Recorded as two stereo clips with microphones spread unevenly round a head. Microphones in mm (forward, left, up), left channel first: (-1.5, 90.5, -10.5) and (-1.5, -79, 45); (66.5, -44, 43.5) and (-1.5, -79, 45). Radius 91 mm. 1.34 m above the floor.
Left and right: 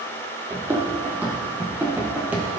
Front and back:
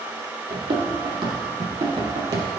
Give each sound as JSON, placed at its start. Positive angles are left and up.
{"t": 0.5, "sound": "running footsteps", "azimuth_deg": -155, "distance_m": 2.5}